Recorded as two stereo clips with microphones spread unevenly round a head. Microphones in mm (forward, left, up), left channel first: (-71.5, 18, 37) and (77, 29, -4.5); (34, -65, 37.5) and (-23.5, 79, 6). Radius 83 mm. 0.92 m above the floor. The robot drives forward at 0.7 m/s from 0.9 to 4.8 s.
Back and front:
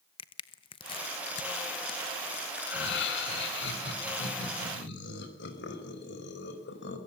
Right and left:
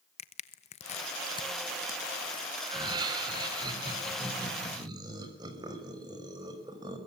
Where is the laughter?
175° left, 4 m.